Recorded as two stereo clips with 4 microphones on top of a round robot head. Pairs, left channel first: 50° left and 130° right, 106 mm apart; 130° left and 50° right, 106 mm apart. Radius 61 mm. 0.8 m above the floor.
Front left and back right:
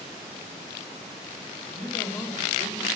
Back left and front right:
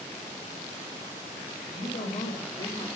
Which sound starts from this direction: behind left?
A woman speaking, at 1.6 s.